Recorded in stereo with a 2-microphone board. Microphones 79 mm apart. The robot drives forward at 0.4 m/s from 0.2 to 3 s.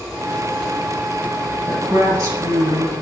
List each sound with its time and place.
1.7 s a woman speaking: 40° right (ahead or behind), 2.5 m; by 2.9 s 35° right (ahead or behind), 3 m